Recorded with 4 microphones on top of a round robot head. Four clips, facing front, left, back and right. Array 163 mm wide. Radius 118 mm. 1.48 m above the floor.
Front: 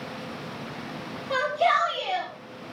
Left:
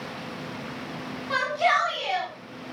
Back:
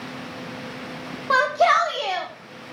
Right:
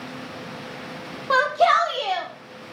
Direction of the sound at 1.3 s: 140° right.